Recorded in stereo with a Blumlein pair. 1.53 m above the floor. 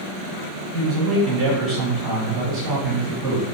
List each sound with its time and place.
0.7 s a man speaking: 30° right, 1.3 m